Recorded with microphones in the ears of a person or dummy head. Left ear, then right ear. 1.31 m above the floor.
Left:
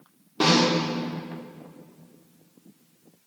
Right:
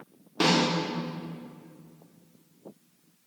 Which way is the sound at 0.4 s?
20° right (ahead or behind).